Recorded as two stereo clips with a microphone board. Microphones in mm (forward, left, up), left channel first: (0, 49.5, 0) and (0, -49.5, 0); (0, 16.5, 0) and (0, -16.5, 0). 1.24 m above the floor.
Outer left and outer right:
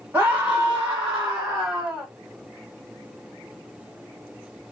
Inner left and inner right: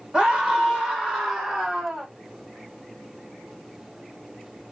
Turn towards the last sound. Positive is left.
turn(degrees=-5)  # may be behind; listen again after turning